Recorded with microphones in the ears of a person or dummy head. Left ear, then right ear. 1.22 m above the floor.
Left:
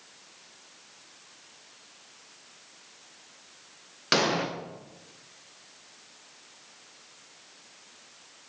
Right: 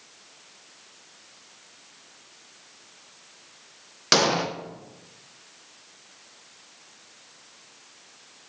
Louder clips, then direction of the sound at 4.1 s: Right 4 dB; 15° right (ahead or behind).